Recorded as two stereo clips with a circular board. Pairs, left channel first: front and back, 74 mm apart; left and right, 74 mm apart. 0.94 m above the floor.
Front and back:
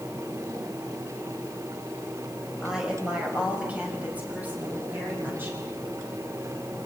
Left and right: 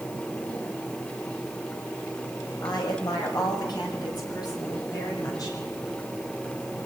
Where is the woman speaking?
100° left, 5.5 m; by 5.6 s 120° left, 8 m.